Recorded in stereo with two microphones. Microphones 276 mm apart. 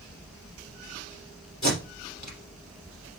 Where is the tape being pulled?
70° left (ahead or behind), 3 m.